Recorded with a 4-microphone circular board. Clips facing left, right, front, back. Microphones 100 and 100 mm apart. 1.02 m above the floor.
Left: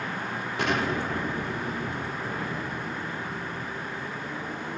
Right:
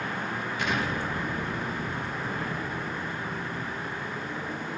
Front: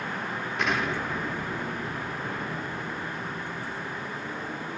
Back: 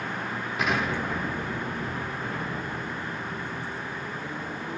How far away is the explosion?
About 3.5 m.